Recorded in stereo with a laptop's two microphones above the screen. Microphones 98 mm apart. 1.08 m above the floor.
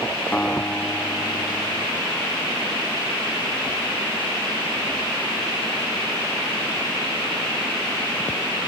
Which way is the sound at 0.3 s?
15° left (ahead or behind).